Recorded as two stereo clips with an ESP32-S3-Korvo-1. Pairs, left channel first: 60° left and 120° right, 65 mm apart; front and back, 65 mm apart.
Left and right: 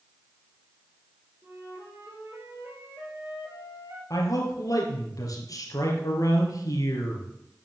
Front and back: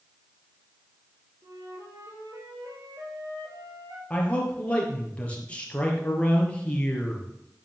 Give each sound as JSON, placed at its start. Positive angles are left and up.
{"t": 1.4, "sound": "a flute", "azimuth_deg": -165, "distance_m": 3.5}
{"t": 4.1, "sound": "a man speaking", "azimuth_deg": 70, "distance_m": 3.5}